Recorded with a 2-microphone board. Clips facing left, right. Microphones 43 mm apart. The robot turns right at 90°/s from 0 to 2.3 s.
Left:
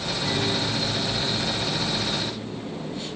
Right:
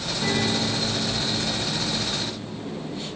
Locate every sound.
0.2 s a guitar: 130° right, 9 m; by 2.6 s 60° left, 9 m